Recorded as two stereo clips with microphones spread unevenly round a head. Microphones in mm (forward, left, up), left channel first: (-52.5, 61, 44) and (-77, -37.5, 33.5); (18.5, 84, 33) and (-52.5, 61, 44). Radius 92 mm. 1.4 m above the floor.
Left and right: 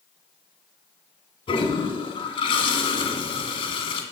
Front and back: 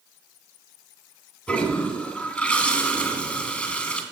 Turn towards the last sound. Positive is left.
turn(degrees=90)